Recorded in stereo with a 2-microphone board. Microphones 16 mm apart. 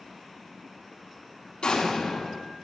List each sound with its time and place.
1.6 s an explosion: 65° left (ahead or behind), 4 m